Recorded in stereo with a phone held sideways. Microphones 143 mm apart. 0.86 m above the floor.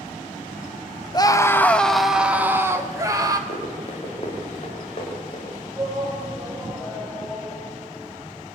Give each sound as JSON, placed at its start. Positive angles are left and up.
{"t": 1.1, "sound": "a scream", "side_deg": 30, "distance_m": 1.2}
{"t": 3.5, "sound": "running footsteps", "side_deg": 45, "distance_m": 7.5}
{"t": 5.7, "sound": "a shout", "side_deg": -10, "distance_m": 4.5}